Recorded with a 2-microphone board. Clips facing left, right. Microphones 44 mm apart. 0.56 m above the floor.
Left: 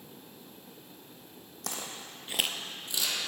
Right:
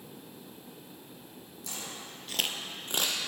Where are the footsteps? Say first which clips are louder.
Left 2 dB; 65° left (ahead or behind), 1.3 m; by 3.2 s 55° right (ahead or behind), 1.2 m.